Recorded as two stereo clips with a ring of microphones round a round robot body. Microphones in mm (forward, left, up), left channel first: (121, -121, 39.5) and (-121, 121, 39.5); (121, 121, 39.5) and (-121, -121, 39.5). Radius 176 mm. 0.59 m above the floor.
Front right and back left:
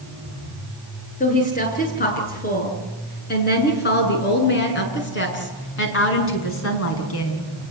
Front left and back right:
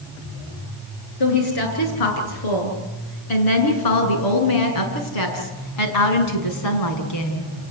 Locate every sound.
1.2 s a woman speaking: 25° left, 8.5 m; by 7.5 s 5° left, 5 m